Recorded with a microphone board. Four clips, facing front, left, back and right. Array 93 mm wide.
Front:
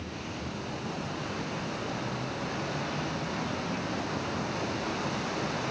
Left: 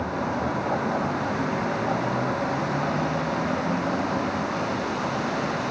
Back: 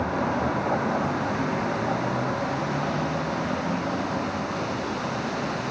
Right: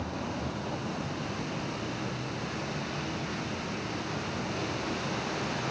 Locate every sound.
0.0 s a vehicle: 150° left; by 5.7 s 115° left